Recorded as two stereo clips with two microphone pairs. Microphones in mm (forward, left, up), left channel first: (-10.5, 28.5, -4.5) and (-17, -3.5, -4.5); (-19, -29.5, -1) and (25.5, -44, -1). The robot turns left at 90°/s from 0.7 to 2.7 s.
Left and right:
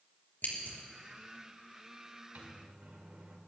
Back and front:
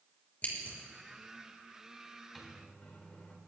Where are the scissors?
105° left, 3.5 m; by 0.7 s 100° left, 3.5 m.